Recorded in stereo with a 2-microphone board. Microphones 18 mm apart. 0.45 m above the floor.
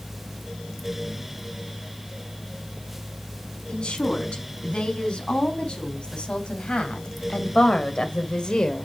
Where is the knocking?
I don't hear knocking.